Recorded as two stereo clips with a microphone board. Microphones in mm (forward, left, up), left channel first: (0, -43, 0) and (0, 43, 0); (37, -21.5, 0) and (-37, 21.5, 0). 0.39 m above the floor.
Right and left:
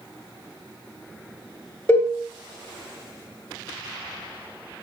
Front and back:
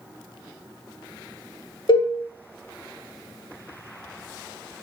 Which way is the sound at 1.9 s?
25° right.